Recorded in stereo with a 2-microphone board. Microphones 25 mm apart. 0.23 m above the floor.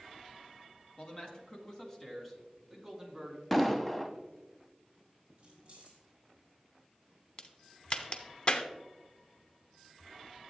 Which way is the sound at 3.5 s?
Centre (ahead or behind).